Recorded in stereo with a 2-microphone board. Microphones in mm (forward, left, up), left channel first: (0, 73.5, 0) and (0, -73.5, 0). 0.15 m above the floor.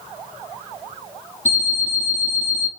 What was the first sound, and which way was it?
An alarm clock, 55° left (ahead or behind).